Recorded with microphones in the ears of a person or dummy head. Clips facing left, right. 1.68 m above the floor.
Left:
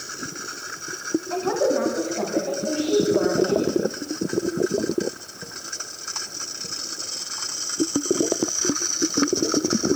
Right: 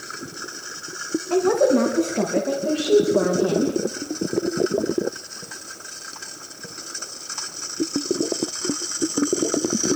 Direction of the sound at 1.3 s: 50° right (ahead or behind).